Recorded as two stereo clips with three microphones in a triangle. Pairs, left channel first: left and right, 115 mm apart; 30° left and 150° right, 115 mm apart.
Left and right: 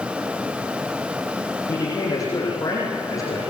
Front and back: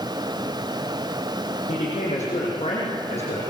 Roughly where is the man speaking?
Ahead left.